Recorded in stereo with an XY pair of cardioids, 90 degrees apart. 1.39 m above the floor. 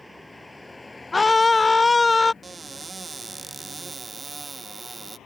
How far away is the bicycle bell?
I don't hear a bicycle bell.